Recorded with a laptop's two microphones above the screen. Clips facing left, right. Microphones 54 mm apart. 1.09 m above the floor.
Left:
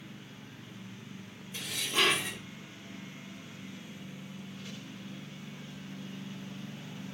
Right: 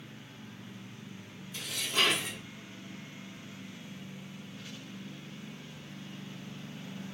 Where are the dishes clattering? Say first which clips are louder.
Even; 25° left (ahead or behind), 1.1 m.